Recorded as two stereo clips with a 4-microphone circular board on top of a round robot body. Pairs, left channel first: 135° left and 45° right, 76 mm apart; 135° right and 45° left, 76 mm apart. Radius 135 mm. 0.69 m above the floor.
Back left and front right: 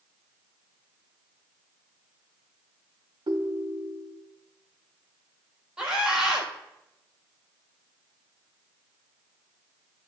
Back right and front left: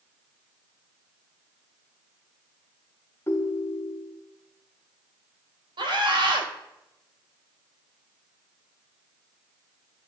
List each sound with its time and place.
3.3 s a ringtone: 75° right, 0.9 m
5.8 s a scream: 30° left, 4 m